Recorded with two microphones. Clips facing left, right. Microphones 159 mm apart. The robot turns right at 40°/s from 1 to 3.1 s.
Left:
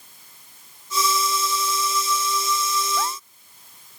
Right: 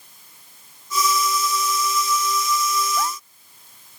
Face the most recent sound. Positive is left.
No sound to turn to.